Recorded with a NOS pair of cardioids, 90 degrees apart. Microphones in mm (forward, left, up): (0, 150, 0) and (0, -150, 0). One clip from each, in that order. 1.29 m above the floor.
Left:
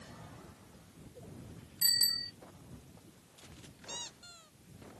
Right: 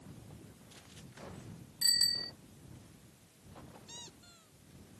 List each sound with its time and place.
1.8 s a bicycle bell: 10° left
3.9 s a squeak: 50° left